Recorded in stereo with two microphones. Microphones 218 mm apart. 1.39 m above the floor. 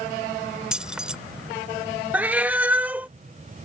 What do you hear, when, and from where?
0.7 s keys jangling: 5° right (ahead or behind)
2.1 s a cat meowing: 5° right (ahead or behind)